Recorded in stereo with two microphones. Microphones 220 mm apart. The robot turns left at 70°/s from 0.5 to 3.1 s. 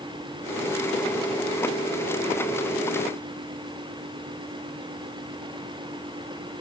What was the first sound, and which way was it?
Only background noise.